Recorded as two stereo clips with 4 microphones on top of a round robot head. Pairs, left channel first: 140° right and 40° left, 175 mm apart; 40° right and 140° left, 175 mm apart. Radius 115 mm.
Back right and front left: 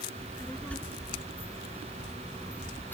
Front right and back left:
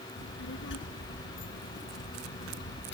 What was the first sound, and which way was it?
A child speaking, 55° right.